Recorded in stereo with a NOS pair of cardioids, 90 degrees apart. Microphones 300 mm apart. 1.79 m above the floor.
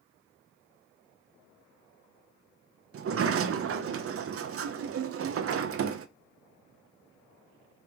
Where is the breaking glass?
No breaking glass in this recording.